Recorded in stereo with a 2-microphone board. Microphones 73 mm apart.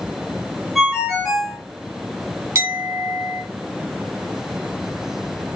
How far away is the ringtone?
About 1.3 m.